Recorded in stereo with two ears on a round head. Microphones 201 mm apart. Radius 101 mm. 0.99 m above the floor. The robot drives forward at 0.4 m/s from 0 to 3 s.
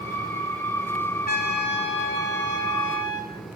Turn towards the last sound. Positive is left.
turn(degrees=55)  # may be behind; listen again after turning